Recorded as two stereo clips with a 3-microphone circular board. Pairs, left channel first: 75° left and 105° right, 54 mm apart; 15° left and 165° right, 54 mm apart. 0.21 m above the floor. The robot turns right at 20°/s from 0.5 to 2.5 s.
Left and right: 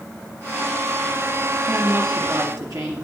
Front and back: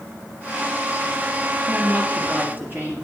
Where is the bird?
I don't hear a bird.